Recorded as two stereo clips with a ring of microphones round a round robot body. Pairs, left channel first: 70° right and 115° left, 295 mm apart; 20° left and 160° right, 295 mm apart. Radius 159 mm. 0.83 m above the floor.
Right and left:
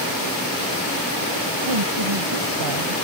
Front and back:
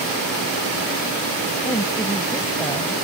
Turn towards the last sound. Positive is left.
turn(degrees=105)